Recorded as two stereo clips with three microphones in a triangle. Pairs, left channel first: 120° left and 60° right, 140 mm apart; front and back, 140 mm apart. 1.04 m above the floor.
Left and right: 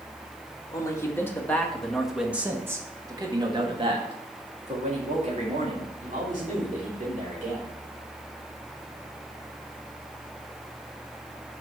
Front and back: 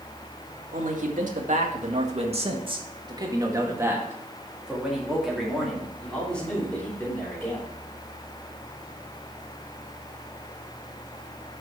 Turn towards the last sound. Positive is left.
turn(degrees=-75)